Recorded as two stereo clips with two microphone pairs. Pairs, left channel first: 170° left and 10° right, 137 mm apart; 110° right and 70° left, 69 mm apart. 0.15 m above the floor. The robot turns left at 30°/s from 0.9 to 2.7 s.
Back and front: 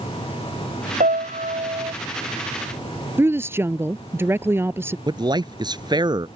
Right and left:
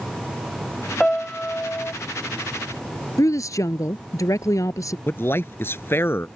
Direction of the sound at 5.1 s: 65° right.